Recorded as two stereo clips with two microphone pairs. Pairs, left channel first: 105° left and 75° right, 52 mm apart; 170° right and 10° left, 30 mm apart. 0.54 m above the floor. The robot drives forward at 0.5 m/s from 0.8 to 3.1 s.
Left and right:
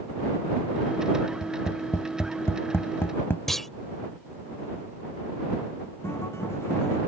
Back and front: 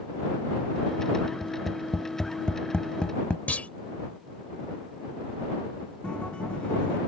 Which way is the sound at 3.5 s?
170° right.